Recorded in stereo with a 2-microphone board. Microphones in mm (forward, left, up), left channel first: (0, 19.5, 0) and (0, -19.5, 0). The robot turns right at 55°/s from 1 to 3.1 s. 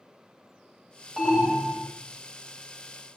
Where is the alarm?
175° right, 4 m; by 1.9 s 135° right, 4 m.